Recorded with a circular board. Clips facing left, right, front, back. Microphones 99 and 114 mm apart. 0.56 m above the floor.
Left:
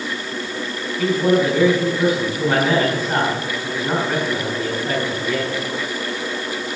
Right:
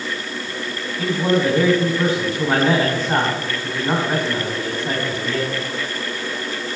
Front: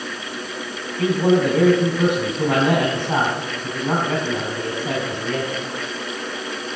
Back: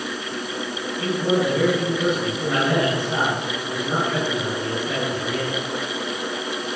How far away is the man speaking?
About 4 m.